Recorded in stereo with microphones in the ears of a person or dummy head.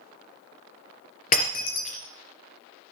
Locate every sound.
1.3 s breaking glass: 45° left (ahead or behind), 3 m